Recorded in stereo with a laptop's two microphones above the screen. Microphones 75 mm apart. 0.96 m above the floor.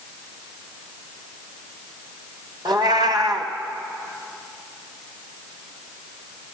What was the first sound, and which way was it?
A cat meowing, 80° right.